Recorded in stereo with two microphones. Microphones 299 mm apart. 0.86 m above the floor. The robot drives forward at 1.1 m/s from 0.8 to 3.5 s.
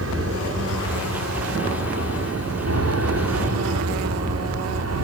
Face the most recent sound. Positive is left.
turn(degrees=-55)  # may be behind; listen again after turning